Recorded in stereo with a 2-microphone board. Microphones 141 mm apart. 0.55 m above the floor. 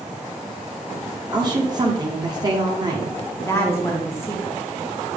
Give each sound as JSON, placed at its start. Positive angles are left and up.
{"t": 1.3, "sound": "a woman speaking", "side_deg": -30, "distance_m": 1.4}
{"t": 3.4, "sound": "a woman speaking", "side_deg": 15, "distance_m": 1.0}